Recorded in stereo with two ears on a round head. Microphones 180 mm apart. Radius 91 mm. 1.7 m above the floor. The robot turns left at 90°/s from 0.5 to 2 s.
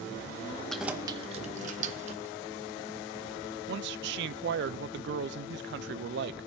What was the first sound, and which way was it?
Keys jangling, 5° left (ahead or behind).